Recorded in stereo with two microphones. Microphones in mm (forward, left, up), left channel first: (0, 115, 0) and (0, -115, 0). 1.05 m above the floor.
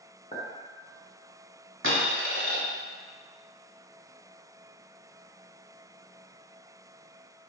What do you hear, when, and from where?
0.3 s a clink: 30° left (ahead or behind), 1.2 m
1.8 s a dropped coin: 60° right (ahead or behind), 1.4 m